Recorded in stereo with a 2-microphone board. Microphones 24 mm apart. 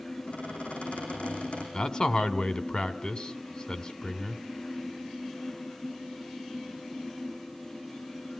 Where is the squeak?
70° left (ahead or behind), 9 m.